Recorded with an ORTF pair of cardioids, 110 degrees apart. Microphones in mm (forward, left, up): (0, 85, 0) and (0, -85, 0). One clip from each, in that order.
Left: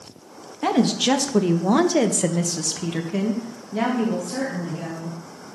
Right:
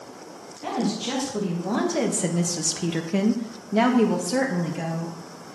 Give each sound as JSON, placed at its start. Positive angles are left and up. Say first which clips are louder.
{"t": 0.6, "sound": "a woman speaking", "louder": "left 7 dB", "azimuth_deg": 70, "distance_m": 1.6}